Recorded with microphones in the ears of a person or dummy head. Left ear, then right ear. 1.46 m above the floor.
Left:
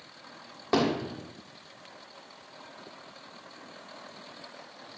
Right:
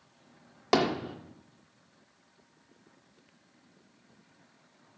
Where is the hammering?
45° right (ahead or behind), 1.5 m.